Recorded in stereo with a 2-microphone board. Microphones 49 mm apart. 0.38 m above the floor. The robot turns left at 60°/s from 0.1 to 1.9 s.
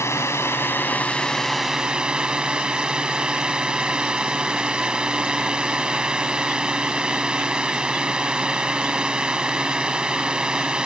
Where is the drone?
90° left; by 10.9 s 20° right.